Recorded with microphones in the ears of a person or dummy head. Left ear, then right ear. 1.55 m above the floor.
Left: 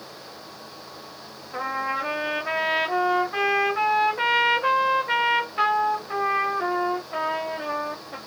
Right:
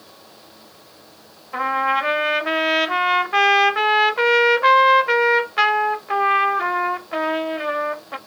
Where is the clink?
I don't hear a clink.